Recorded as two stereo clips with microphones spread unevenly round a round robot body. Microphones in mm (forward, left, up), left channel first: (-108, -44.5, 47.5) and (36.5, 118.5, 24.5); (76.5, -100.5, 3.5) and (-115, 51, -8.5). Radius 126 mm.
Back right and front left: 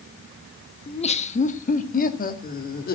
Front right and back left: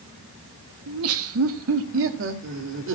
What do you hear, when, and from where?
0.9 s laughter: 160° left, 1.2 m; by 2.9 s straight behind, 2.5 m